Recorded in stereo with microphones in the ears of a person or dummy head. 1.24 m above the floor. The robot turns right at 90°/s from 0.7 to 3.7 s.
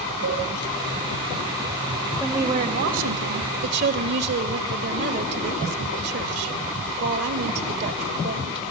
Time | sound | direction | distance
0.2 | a cowbell | 75° right (ahead or behind) | 6 m
2.2 | a woman speaking | 175° left | 1.7 m